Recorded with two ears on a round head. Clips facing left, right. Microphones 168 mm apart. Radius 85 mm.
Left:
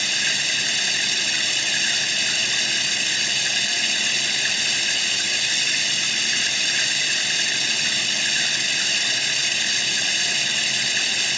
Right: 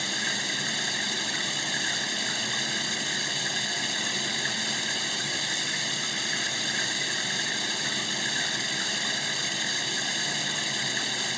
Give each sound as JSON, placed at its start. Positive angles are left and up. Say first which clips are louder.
{"t": 0.0, "sound": "running water", "louder": "even", "side_deg": 35}